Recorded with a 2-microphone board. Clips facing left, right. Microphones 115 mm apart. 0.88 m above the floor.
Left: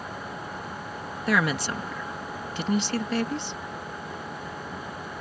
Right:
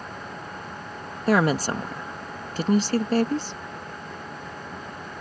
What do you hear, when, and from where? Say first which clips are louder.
1.3 s a woman speaking: right 5 dB; 40° right (ahead or behind)